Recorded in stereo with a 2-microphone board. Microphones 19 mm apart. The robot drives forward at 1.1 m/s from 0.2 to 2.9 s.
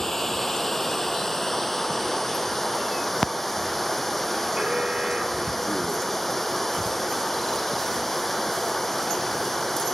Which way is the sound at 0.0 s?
20° left (ahead or behind).